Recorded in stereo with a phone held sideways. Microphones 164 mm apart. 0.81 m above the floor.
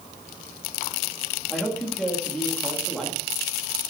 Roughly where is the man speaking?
Centre.